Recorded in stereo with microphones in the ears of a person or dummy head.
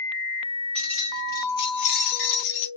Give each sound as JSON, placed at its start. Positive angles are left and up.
{"t": 0.8, "sound": "keys jangling", "side_deg": 5, "distance_m": 1.4}